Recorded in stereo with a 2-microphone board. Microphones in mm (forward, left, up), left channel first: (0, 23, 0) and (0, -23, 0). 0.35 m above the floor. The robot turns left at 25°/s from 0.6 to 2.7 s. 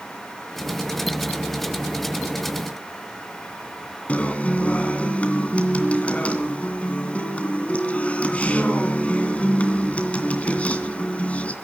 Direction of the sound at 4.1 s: 30° left (ahead or behind).